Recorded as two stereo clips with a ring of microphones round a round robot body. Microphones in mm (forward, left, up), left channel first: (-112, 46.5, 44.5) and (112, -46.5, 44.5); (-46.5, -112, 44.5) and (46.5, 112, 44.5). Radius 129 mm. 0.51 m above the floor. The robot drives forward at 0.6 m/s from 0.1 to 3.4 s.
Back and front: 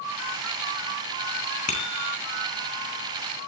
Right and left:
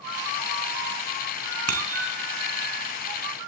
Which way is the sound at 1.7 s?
95° left.